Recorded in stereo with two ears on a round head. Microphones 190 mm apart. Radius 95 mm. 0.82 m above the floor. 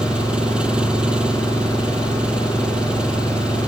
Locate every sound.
0.0 s an engine running: 5° right (ahead or behind)